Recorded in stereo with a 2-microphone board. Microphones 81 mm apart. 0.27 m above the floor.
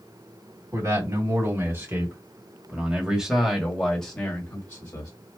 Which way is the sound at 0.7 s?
40° right (ahead or behind).